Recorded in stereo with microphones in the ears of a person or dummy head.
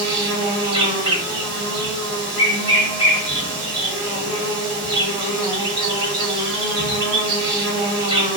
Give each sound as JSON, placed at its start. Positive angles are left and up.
{"t": 0.0, "sound": "an insect", "side_deg": -20, "distance_m": 1.2}